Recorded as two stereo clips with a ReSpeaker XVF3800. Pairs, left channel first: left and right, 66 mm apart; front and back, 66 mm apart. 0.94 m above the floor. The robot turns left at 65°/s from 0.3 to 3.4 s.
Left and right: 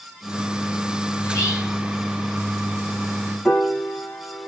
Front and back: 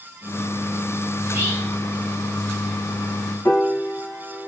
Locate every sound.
1.2 s whispering: 140° left, 2 m; by 1.8 s 105° left, 2 m
3.5 s a piano: 15° left, 1.4 m